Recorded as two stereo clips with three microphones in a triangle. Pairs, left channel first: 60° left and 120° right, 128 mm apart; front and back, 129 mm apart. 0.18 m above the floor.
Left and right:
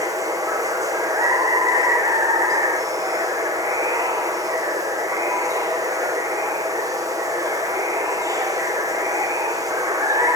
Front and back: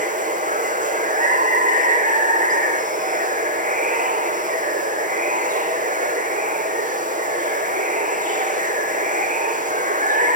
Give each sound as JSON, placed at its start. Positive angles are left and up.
{"t": 0.0, "sound": "running water", "azimuth_deg": 175, "distance_m": 1.5}